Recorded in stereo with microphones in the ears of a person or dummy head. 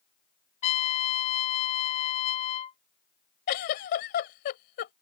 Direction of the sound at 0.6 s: 40° left (ahead or behind).